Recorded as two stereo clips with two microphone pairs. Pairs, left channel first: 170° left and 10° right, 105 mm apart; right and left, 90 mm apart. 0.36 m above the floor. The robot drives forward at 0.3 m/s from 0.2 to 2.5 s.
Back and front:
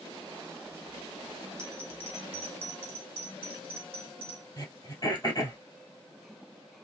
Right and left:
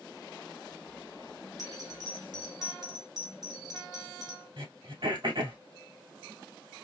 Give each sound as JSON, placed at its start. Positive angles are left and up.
{"t": 1.6, "sound": "a bell", "azimuth_deg": 55, "distance_m": 1.7}
{"t": 4.6, "sound": "throat clearing", "azimuth_deg": 120, "distance_m": 2.5}